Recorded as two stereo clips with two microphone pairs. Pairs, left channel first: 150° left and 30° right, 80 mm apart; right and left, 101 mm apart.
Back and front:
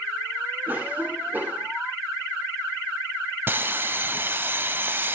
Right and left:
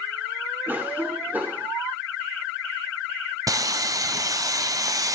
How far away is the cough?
About 1.8 m.